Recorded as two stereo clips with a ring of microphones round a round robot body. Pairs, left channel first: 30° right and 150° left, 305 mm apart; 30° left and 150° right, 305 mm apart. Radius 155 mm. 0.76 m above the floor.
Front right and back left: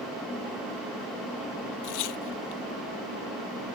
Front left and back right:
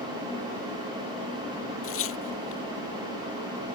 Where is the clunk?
I don't hear a clunk.